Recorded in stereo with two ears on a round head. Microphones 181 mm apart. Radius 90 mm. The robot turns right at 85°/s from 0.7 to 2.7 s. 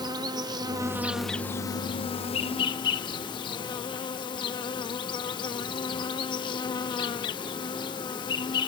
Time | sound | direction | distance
0.0 | an insect | 20° right (ahead or behind) | ?